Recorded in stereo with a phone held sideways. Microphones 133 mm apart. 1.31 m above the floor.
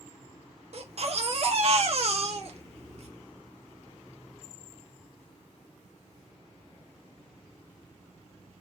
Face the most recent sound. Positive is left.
turn(degrees=-55)  # may be behind; listen again after turning